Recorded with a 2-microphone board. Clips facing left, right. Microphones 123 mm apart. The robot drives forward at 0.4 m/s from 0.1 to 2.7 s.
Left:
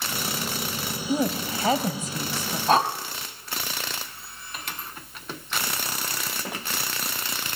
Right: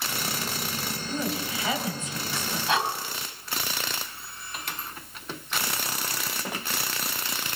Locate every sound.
1.1 s a woman speaking: 40° left (ahead or behind), 1.9 m; by 2.6 s 35° left (ahead or behind), 2.0 m
2.7 s breathing: 40° left (ahead or behind), 1.1 m